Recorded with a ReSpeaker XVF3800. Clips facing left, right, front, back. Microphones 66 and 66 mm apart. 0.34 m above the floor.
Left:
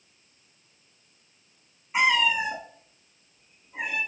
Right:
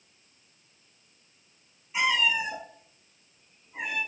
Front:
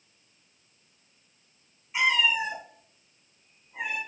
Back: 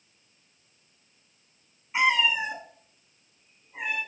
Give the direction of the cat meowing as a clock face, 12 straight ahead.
8 o'clock.